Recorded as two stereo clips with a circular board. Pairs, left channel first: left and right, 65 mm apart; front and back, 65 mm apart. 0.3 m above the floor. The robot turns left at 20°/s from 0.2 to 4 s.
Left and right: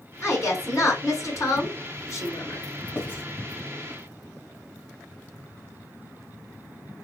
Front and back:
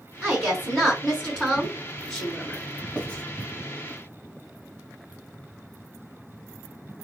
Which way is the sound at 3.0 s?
65° left.